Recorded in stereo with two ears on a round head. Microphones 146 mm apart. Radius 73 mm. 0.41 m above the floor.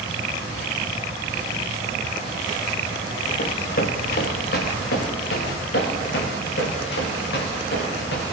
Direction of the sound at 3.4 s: 55° left (ahead or behind).